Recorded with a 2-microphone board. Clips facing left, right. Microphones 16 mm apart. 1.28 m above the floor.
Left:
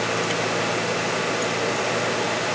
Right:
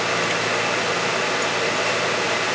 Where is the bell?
I don't hear a bell.